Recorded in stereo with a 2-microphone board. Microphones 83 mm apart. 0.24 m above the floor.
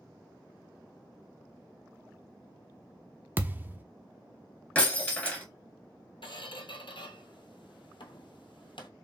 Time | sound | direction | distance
3.4 | a thud | 25° right (ahead or behind) | 0.6 m
4.8 | breaking glass | 15° left (ahead or behind) | 1.9 m
6.2 | a squeak | 75° left (ahead or behind) | 0.8 m